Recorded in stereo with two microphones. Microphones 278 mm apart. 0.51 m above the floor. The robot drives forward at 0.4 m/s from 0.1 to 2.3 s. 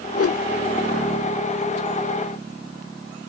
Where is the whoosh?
55° left (ahead or behind); by 0.4 s 50° left (ahead or behind).